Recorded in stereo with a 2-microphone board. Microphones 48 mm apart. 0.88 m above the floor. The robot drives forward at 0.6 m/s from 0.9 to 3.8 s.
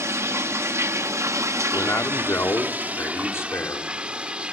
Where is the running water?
65° right (ahead or behind), 0.8 m; by 4.5 s 25° right (ahead or behind), 1.6 m.